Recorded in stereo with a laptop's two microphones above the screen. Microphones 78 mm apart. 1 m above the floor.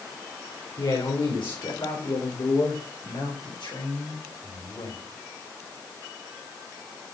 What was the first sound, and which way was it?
A man speaking, 75° left (ahead or behind).